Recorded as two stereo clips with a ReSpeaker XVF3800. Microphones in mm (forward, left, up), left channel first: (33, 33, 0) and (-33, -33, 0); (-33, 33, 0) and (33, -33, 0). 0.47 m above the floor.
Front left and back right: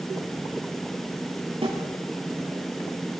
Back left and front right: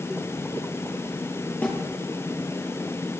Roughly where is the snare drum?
Behind right.